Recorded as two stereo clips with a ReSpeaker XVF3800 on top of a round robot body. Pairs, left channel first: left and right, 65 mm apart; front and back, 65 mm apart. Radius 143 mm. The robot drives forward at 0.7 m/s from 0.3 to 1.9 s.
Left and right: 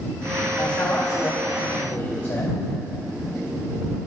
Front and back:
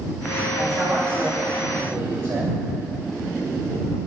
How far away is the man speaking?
About 1.9 m.